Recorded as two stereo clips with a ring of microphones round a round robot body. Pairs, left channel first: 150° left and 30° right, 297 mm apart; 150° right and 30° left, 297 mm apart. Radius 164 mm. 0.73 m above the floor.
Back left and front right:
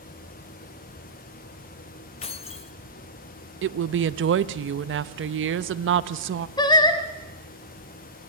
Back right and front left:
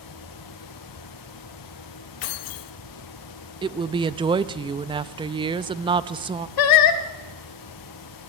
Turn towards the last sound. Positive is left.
turn(degrees=-135)